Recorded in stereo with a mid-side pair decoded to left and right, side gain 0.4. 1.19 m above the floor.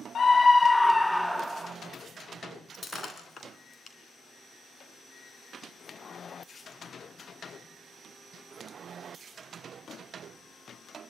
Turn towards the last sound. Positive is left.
turn(degrees=50)